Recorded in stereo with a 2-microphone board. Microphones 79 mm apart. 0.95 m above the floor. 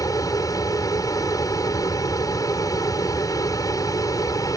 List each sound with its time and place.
0.0 s an aircraft: 45° left (ahead or behind)